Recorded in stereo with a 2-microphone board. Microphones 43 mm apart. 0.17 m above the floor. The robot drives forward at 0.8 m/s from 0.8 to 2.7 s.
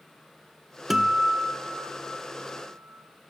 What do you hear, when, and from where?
0.9 s a guitar: 10° right (ahead or behind), 1.0 m; by 3.0 s 5° right (ahead or behind), 2.5 m